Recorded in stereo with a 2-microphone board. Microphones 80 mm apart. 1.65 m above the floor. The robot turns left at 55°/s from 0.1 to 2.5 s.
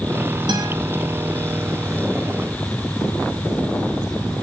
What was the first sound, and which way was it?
A guitar, 85° right.